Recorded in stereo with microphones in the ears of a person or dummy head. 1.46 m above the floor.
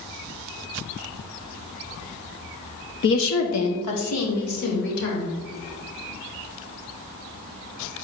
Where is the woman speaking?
60° left (ahead or behind), 0.9 m; by 5.3 s 75° left (ahead or behind), 3 m.